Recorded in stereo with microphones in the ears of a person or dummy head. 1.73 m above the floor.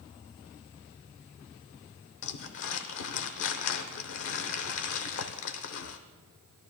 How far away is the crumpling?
About 0.9 m.